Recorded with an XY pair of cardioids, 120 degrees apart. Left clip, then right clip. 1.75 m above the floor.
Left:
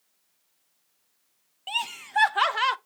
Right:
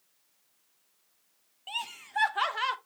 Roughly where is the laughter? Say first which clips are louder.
Left 6 dB; ahead left.